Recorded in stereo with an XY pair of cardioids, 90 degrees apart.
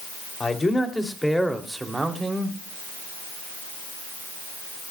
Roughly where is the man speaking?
Ahead left.